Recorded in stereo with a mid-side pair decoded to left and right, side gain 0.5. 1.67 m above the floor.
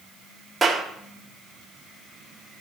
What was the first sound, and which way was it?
A clap, 30° right.